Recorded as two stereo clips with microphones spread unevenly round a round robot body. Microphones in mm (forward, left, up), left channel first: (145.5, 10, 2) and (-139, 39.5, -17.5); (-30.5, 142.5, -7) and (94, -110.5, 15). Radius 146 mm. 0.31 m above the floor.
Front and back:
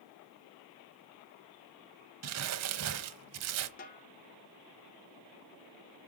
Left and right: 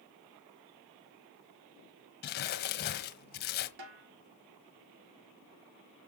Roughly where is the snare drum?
Right.